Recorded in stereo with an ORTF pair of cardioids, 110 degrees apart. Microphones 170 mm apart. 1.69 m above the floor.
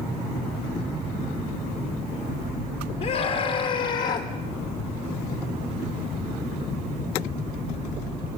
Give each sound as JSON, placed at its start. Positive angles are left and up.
{"t": 3.0, "sound": "a scream", "azimuth_deg": 55, "distance_m": 3.5}